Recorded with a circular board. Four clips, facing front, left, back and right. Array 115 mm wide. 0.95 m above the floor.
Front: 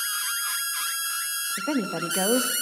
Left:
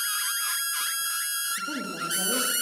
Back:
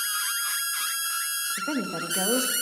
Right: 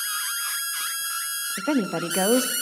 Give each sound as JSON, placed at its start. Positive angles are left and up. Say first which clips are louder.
{"t": 1.6, "sound": "a woman speaking", "louder": "right 11 dB, front 3 dB", "azimuth_deg": -75, "distance_m": 1.5}